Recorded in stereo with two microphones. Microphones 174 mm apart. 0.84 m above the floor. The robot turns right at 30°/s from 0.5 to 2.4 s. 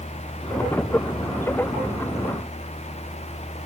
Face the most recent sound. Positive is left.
No sound to turn to.